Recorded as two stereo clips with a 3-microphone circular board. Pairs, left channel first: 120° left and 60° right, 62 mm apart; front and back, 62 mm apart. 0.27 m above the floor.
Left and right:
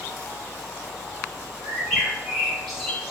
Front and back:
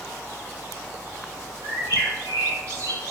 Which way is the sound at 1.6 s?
155° right.